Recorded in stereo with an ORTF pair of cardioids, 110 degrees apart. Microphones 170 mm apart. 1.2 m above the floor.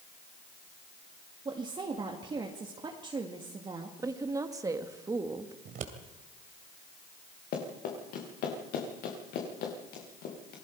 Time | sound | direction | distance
1.4 | a woman speaking | 30° right | 2 m
4.0 | a woman speaking | 20° right | 1.8 m
5.7 | scissors | 60° right | 2.5 m
7.5 | running footsteps | 70° left | 6 m